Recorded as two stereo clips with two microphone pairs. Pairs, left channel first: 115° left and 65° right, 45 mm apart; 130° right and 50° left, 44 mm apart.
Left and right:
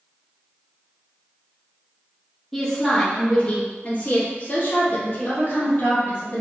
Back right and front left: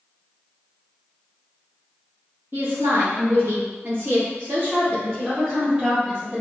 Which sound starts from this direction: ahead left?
A woman speaking, at 2.5 s.